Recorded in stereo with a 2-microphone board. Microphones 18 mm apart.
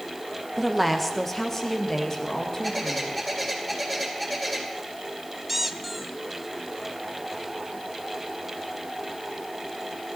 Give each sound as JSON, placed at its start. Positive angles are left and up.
{"t": 0.6, "sound": "a woman speaking", "side_deg": 0, "distance_m": 1.3}
{"t": 2.6, "sound": "a bird", "side_deg": 5, "distance_m": 2.5}
{"t": 5.5, "sound": "a squeak", "side_deg": -5, "distance_m": 0.6}